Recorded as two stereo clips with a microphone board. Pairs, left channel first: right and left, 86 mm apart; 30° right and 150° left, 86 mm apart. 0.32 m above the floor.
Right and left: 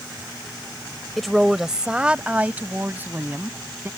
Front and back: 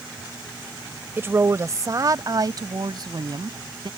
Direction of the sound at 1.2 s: 175° right.